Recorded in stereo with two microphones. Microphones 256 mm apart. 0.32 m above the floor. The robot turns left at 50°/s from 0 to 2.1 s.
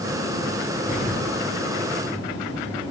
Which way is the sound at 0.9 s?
30° left.